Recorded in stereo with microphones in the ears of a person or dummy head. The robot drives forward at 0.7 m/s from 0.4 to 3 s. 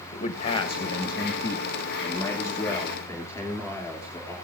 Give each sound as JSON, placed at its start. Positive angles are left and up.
{"t": 0.1, "sound": "a man speaking", "side_deg": 35, "distance_m": 1.0}